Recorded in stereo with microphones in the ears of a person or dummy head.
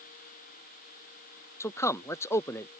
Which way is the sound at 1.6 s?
15° left (ahead or behind).